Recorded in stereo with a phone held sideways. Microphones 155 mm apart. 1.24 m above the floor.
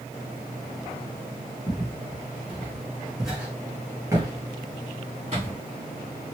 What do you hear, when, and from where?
1.7 s footsteps: 20° left (ahead or behind), 1.9 m; by 5.5 s 45° right (ahead or behind), 1.7 m